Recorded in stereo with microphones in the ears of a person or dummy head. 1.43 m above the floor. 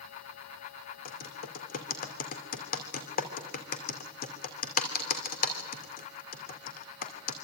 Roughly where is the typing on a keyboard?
Left.